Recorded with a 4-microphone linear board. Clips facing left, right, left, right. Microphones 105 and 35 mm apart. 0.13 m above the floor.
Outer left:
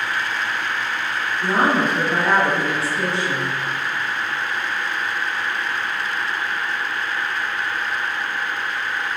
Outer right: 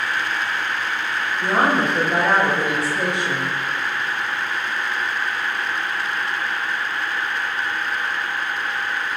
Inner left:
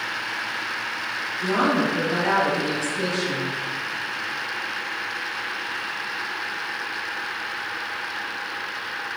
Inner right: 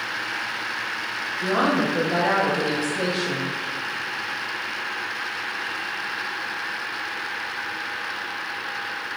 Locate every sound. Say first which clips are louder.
1.4 s a woman speaking: even, even; 15° right (ahead or behind), 1.4 m